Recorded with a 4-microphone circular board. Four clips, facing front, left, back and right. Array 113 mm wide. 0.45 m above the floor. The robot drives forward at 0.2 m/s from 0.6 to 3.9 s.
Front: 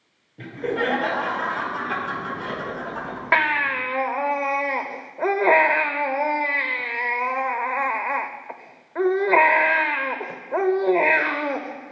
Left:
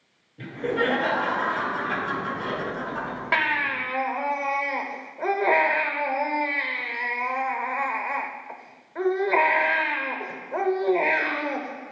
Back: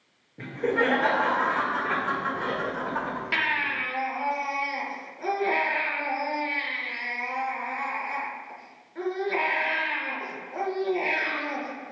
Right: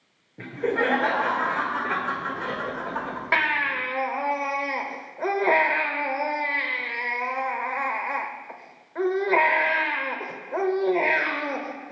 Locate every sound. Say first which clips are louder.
0.4 s laughter: right 1 dB, even; 120° right, 1.7 m; by 3.2 s 140° right, 1.9 m
3.3 s a baby crying: right 1 dB, front 10 dB; 5° right, 0.6 m